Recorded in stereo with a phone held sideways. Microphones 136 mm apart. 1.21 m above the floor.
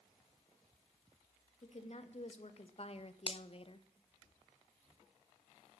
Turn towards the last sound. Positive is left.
turn(degrees=45)  # may be behind; listen again after turning